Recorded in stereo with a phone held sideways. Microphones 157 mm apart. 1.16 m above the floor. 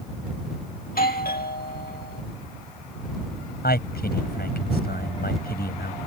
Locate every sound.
0.8 s a doorbell: 70° left (ahead or behind)
3.6 s a man speaking: 80° left